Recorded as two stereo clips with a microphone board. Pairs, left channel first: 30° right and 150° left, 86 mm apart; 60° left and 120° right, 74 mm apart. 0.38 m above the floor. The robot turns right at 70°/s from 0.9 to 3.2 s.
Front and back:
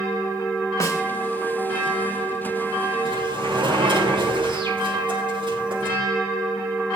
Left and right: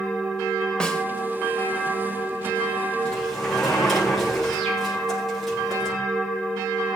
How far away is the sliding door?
About 7.5 m.